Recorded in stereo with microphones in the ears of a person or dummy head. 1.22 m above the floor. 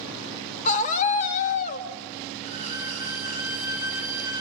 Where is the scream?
40° left (ahead or behind), 1.9 m.